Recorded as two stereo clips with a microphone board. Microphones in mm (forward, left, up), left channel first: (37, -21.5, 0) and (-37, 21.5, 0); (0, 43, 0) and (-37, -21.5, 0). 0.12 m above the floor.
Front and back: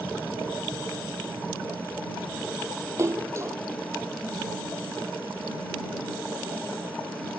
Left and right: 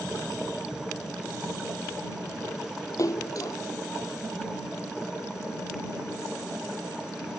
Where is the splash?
95° left.